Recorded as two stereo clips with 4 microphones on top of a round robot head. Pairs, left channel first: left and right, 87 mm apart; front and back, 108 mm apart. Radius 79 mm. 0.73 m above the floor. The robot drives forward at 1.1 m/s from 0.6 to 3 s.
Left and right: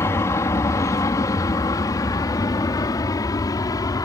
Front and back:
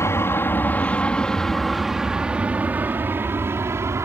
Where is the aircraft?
50° left; by 4.0 s 120° left.